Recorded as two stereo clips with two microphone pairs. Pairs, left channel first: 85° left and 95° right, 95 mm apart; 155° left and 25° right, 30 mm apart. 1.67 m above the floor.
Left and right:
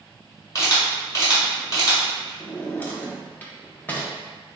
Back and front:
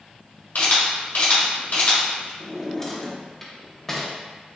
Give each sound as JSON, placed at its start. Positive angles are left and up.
{"t": 0.6, "sound": "a camera shutter", "azimuth_deg": 140, "distance_m": 1.6}
{"t": 2.4, "sound": "a drawer", "azimuth_deg": 100, "distance_m": 0.7}